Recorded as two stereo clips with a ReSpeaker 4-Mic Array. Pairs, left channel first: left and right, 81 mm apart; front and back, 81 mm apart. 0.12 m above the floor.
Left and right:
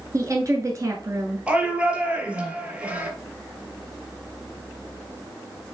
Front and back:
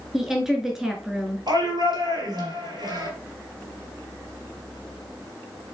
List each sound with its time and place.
0.1 s a woman speaking: 95° right, 1.5 m
1.5 s a shout: 165° right, 2.5 m